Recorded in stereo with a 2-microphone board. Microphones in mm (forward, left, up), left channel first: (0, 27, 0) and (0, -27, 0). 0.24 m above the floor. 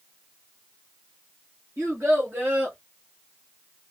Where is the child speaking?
55° right (ahead or behind), 2.5 m; by 2.8 s 30° right (ahead or behind), 2 m.